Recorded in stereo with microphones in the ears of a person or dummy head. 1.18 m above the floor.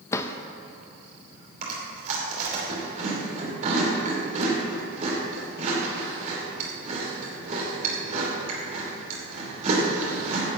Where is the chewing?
45° right (ahead or behind), 2.5 m.